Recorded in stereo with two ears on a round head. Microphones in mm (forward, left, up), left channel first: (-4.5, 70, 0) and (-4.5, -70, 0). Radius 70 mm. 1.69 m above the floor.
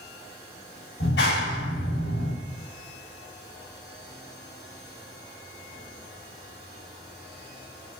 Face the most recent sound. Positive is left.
turn(degrees=80)